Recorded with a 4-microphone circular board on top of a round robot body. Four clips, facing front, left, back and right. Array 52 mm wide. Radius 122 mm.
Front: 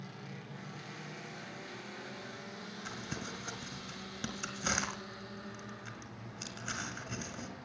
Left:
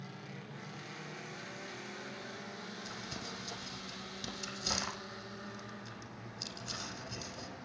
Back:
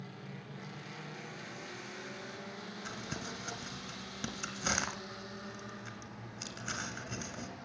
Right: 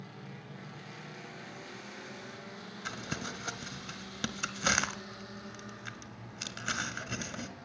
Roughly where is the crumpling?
Right.